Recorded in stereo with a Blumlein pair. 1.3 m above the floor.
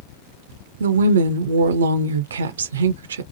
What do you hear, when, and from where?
0.8 s a woman speaking: 65° right, 0.5 m